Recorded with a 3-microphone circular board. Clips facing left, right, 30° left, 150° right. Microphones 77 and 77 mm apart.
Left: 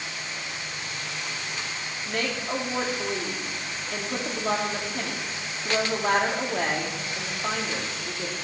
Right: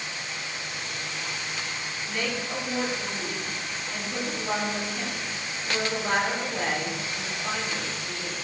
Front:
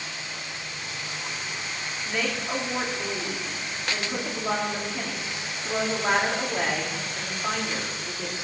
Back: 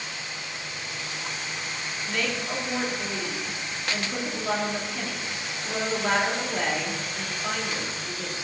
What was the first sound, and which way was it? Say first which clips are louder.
A woman speaking: left 3 dB, front 1 dB; 105° left.